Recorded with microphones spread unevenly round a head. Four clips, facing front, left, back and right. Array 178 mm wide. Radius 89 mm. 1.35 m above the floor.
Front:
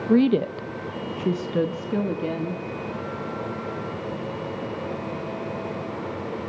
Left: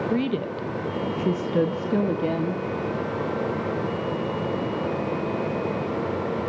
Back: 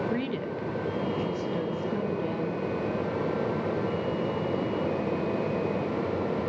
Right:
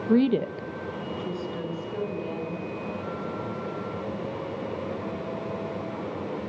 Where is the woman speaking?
25° right, 1.5 m; by 2.6 s 65° left, 3 m.